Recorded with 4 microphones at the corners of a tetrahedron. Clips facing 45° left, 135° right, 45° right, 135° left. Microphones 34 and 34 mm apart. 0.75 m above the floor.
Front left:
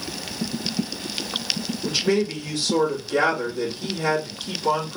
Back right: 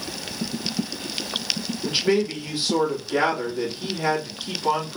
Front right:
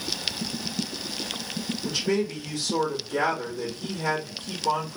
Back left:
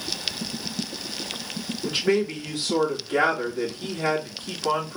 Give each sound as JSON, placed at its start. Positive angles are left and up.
{"t": 1.8, "sound": "a man speaking", "azimuth_deg": 170, "distance_m": 1.7}